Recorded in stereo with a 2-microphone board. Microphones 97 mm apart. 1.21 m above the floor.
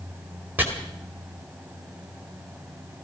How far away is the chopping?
About 2.5 m.